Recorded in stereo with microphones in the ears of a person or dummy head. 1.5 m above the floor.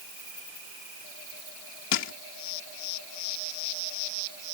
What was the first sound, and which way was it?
Crushing, 70° left (ahead or behind).